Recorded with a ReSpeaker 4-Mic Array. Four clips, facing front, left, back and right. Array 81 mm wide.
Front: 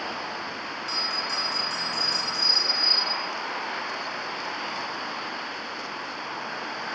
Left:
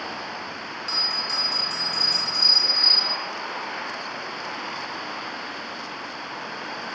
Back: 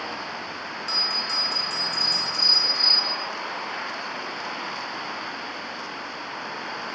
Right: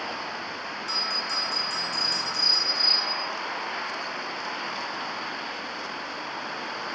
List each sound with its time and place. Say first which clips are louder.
0.9 s a bell: left 1 dB, even; 145° left, 1.1 m